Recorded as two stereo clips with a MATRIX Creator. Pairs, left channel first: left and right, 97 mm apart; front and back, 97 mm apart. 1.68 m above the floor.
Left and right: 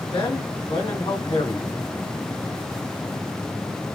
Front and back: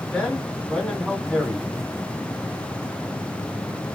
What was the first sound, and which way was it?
A man speaking, 80° left.